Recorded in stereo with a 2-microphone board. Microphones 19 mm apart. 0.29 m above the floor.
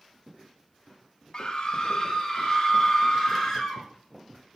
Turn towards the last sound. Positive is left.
turn(degrees=0)  # may be behind; listen again after turning